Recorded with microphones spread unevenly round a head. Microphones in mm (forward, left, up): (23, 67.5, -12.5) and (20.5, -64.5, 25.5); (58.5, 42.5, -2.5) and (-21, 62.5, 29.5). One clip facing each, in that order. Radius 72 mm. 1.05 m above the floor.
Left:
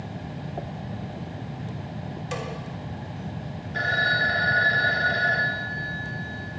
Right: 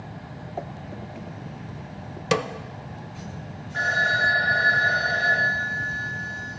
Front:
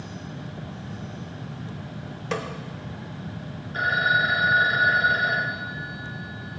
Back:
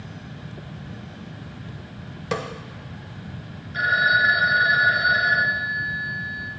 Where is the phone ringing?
30° left, 2.5 m.